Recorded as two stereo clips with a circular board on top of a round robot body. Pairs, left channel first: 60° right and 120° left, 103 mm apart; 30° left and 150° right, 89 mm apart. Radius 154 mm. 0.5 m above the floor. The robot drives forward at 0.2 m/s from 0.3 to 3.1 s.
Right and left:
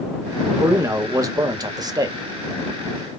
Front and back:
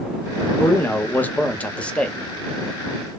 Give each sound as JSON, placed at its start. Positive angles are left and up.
{"t": 0.6, "sound": "a man speaking", "azimuth_deg": 80, "distance_m": 1.1}